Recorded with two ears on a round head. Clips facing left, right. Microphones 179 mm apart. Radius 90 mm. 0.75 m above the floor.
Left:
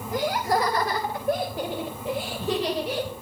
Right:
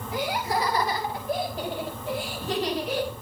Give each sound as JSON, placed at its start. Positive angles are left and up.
{"t": 0.1, "sound": "laughter", "side_deg": 40, "distance_m": 4.0}